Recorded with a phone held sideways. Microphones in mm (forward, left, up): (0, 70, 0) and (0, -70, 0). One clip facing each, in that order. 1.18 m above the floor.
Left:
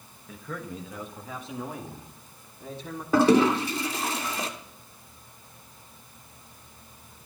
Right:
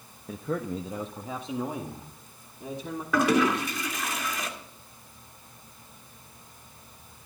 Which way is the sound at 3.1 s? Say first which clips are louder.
Left 4 dB; 35° left (ahead or behind).